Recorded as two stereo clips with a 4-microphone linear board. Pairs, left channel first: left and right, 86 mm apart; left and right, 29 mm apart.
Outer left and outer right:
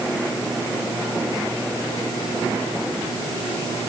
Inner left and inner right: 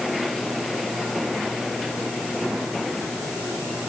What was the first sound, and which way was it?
Only background noise.